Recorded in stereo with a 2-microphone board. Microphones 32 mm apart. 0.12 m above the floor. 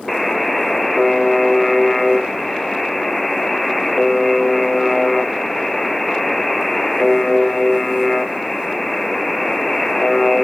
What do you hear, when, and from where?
0.1 s a buzzer: centre (ahead or behind), 0.8 m